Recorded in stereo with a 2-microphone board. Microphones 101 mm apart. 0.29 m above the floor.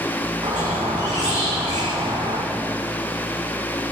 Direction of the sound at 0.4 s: 40° right (ahead or behind).